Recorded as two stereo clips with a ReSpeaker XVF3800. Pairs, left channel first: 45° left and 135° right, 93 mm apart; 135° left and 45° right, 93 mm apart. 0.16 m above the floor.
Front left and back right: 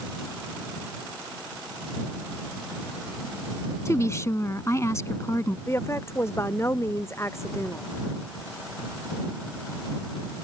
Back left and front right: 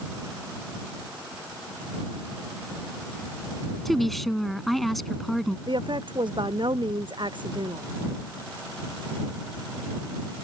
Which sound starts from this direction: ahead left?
A woman speaking, at 3.9 s.